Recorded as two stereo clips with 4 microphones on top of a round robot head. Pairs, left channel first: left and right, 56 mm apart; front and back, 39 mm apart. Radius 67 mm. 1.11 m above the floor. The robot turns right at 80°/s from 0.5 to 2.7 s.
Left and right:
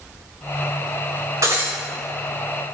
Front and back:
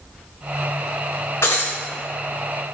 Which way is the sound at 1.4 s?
45° right.